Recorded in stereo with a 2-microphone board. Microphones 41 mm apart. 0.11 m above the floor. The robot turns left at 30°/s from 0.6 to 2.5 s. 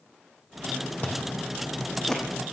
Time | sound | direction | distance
1.0 | chewing | 45° left (ahead or behind) | 3 m